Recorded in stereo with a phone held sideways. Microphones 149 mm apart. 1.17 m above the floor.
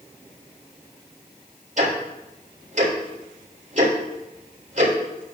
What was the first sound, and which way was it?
Ticking, 55° right (ahead or behind).